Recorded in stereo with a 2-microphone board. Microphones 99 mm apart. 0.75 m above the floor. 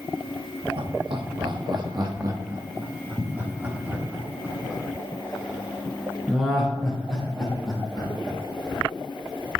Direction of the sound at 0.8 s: 55° right (ahead or behind).